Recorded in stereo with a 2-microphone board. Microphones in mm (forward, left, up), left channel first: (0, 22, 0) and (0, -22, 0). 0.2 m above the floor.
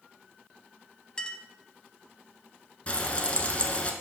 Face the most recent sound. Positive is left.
turn(degrees=25)  # may be behind; listen again after turning